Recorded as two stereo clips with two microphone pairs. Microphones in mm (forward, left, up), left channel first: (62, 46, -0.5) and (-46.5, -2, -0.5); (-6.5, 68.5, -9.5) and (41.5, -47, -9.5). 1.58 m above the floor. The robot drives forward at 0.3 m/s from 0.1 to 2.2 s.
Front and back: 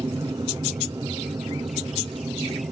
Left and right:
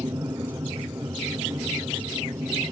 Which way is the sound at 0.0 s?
115° right.